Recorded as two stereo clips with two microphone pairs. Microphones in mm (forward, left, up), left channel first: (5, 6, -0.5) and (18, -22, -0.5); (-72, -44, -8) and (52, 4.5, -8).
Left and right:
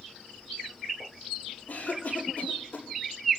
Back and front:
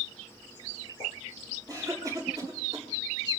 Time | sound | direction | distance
1.7 | a cough | 85° left | 5.5 m